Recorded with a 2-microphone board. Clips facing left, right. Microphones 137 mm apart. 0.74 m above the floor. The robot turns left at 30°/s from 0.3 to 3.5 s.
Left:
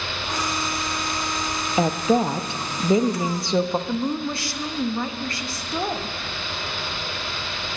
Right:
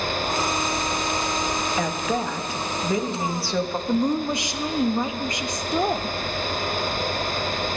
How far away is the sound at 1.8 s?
About 0.6 m.